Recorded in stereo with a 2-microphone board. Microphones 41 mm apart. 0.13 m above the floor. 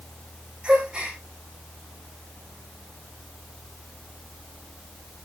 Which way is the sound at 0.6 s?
25° right (ahead or behind).